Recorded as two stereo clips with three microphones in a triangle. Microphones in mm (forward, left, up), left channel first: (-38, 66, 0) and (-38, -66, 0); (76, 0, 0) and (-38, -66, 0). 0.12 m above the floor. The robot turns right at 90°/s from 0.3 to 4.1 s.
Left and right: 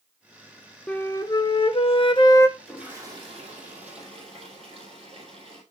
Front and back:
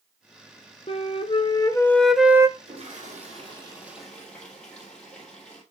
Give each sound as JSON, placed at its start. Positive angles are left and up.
{"t": 0.9, "sound": "a flute", "azimuth_deg": 10, "distance_m": 0.7}
{"t": 2.6, "sound": "a toilet flushing", "azimuth_deg": 170, "distance_m": 3.5}